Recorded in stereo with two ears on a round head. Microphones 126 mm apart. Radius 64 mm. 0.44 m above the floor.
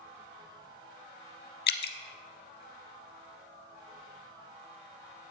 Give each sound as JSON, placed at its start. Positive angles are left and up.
{"t": 1.7, "sound": "dripping", "side_deg": 80, "distance_m": 0.7}